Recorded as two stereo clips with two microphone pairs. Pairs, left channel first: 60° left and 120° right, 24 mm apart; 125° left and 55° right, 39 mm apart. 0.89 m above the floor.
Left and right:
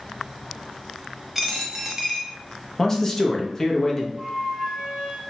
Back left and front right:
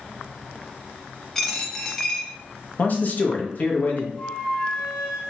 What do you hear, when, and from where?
1.4 s a dropped coin: straight behind, 0.7 m
2.8 s a man speaking: 115° left, 0.6 m
4.2 s a flute: straight behind, 1.4 m